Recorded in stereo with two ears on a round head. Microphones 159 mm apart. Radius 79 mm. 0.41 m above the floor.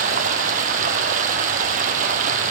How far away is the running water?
About 1.1 m.